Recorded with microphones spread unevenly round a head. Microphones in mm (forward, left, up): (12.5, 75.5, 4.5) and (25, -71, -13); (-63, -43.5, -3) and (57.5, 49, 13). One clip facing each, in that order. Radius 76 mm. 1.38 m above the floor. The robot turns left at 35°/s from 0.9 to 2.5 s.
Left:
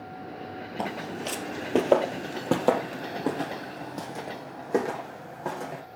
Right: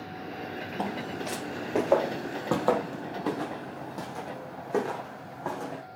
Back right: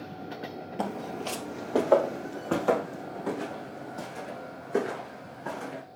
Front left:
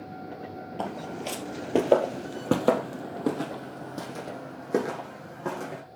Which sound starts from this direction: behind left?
Footsteps, at 0.8 s.